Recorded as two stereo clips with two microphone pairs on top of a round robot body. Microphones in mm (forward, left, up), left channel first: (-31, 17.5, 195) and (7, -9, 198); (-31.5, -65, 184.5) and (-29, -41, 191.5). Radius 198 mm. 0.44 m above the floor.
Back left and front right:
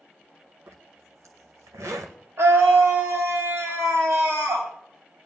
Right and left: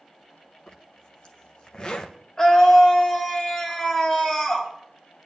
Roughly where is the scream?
Ahead right.